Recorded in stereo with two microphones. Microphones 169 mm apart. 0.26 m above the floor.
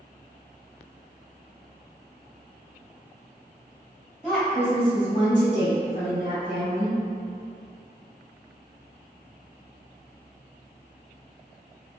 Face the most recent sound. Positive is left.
turn(degrees=55)  # may be behind; listen again after turning